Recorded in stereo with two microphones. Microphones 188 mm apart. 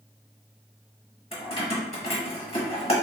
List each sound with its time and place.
1.3 s keys jangling: 30° left (ahead or behind), 0.9 m